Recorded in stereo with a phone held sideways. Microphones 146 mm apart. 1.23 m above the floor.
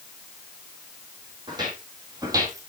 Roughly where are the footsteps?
Right.